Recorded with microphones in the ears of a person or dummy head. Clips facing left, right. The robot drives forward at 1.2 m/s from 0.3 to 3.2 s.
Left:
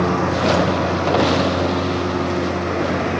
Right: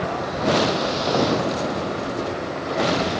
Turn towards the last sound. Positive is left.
turn(degrees=65)  # may be behind; listen again after turning